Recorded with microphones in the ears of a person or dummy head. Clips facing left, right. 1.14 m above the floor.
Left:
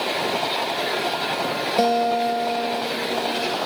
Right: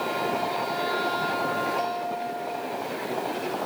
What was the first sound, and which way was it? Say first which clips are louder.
A guitar: left 10 dB; 75° left (ahead or behind).